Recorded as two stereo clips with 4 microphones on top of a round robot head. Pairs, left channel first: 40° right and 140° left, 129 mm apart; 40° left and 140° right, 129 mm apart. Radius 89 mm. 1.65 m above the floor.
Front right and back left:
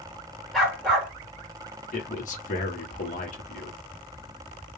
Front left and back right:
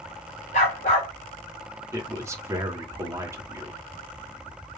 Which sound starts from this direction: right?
A man speaking, at 1.9 s.